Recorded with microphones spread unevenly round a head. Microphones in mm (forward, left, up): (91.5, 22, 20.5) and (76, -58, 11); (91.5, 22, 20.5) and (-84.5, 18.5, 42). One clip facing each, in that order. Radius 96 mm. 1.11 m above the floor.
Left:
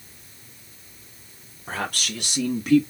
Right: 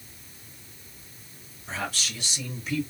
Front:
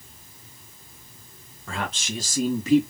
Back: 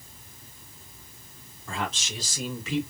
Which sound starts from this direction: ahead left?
A man speaking, at 1.7 s.